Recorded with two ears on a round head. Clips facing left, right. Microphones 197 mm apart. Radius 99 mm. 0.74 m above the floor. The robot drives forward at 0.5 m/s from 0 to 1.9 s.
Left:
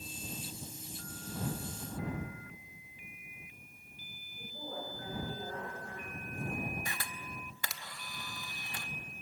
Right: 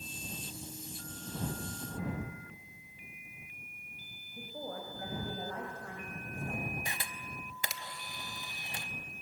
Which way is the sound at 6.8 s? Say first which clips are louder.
Even; 20° right (ahead or behind).